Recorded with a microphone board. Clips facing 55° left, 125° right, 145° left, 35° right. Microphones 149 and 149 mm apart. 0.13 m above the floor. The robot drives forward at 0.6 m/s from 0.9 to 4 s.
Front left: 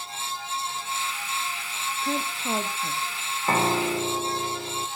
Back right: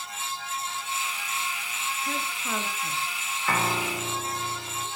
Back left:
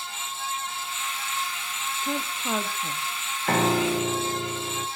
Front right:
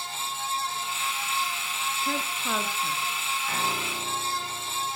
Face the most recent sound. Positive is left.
turn(degrees=125)